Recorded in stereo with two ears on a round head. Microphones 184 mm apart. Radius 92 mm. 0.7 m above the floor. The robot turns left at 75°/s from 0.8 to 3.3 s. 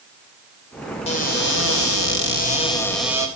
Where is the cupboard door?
145° left, 3 m; by 3.3 s 20° right, 3 m.